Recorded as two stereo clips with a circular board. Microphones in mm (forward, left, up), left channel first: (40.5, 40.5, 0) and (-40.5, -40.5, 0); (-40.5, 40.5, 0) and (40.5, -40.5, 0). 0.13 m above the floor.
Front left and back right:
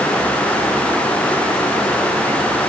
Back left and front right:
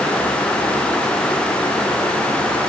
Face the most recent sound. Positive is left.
No sound to turn to.